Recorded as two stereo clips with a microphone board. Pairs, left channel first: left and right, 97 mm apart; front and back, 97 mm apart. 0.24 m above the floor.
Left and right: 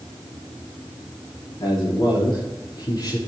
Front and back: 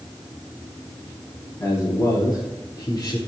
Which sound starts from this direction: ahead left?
A man speaking, at 1.6 s.